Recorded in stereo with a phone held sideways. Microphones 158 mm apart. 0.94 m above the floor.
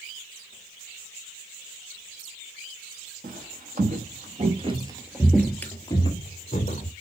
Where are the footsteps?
65° right (ahead or behind), 2 m; by 6.9 s 45° left (ahead or behind), 1.8 m.